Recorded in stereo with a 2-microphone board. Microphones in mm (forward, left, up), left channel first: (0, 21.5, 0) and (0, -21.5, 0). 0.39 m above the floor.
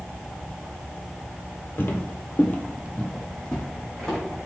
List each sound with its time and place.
1.8 s footsteps: 55° left (ahead or behind), 0.6 m; by 4.2 s 10° left (ahead or behind), 1.5 m